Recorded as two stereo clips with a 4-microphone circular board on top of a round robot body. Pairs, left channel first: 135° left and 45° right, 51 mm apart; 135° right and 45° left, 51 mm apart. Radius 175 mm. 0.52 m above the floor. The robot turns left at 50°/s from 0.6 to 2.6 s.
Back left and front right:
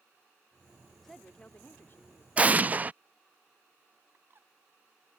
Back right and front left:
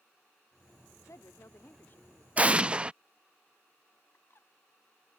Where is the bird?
90° right.